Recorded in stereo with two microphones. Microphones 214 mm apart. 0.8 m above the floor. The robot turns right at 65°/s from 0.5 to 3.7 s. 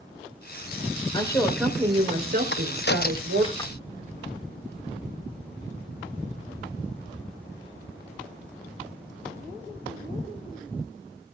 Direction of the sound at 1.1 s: 155° left.